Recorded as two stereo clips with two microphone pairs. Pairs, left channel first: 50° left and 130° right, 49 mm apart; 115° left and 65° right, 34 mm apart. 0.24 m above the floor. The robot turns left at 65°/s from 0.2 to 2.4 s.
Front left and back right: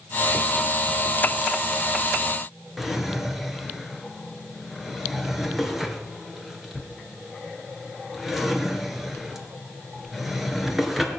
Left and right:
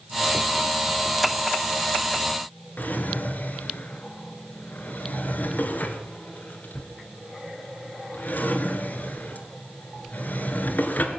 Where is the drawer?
145° left, 2 m.